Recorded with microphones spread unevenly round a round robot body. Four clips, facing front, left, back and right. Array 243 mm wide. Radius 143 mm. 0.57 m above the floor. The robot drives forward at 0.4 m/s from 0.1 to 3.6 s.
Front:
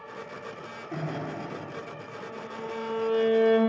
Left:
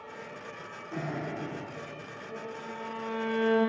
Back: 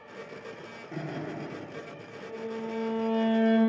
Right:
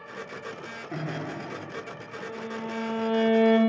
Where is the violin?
90° right, 1.0 m; by 3.6 s 120° right, 1.1 m.